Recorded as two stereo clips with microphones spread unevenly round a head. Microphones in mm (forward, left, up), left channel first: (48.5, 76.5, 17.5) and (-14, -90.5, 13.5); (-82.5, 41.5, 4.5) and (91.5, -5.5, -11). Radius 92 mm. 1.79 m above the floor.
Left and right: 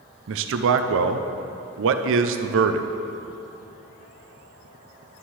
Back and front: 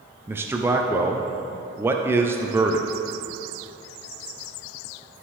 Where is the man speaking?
95° right, 0.5 m.